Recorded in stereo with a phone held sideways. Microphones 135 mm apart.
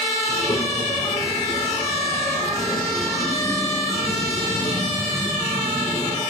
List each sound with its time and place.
0.3 s a child speaking: 40° left (ahead or behind), 2 m; by 6.2 s 25° left (ahead or behind), 5.5 m